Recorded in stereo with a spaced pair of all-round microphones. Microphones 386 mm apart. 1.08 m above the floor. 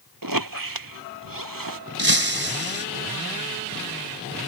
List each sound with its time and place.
0.2 s a squeak: 55° right (ahead or behind)
2.0 s breaking glass: 65° right (ahead or behind)